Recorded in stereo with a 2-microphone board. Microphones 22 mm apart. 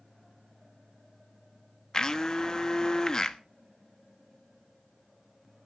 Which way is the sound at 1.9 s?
25° left (ahead or behind).